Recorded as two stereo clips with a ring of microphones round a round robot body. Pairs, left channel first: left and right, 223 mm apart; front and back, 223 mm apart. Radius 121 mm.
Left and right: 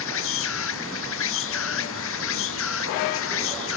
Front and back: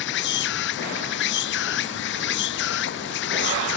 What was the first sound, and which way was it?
An insect, 50° left.